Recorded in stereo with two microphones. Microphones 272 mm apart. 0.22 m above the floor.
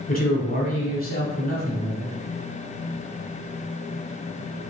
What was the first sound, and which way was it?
A man speaking, 35° left (ahead or behind).